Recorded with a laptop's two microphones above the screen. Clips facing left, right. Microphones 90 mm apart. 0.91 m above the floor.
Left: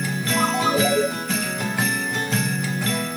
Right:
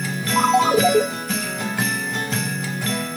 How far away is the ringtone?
About 1.4 m.